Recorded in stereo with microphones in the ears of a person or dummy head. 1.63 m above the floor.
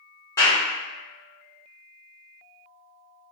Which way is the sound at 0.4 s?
20° left (ahead or behind).